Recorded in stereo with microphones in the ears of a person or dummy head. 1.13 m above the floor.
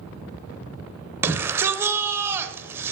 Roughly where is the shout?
Centre.